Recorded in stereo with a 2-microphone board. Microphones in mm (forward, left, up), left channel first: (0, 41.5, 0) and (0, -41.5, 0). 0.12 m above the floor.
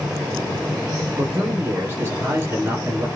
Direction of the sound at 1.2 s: 30° right (ahead or behind).